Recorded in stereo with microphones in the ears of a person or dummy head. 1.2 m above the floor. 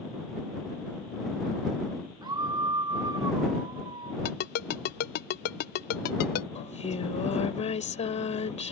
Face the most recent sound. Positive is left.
turn(degrees=40)  # may be behind; listen again after turning